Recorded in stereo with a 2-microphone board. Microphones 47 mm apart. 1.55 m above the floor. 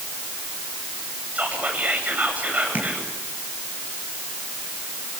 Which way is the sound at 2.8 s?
35° right (ahead or behind).